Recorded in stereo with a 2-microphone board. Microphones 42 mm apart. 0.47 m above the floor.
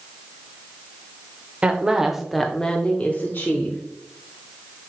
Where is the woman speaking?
25° right (ahead or behind), 1.3 m; by 3.8 s 55° left (ahead or behind), 1.4 m.